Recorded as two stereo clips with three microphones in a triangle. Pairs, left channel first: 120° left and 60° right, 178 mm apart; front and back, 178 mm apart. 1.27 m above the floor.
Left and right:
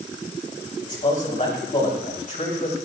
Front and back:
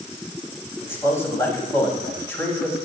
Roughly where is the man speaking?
Left.